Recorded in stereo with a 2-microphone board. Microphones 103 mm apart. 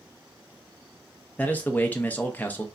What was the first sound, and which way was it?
A man speaking, 15° left (ahead or behind).